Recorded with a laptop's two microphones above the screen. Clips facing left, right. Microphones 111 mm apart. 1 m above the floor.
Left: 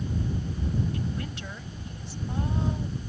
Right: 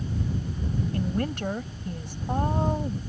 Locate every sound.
0.9 s a woman speaking: 55° right (ahead or behind)